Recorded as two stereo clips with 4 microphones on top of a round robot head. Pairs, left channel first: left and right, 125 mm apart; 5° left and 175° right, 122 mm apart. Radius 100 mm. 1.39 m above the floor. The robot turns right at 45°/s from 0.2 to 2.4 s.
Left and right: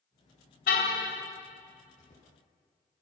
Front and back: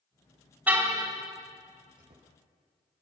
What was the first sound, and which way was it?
A car horn, 110° left.